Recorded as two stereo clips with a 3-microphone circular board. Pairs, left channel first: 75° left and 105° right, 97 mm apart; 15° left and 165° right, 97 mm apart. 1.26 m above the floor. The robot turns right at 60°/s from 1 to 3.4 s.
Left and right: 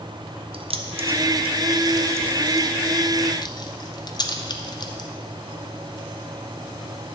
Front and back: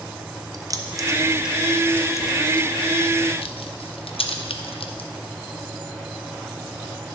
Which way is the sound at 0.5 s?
115° right.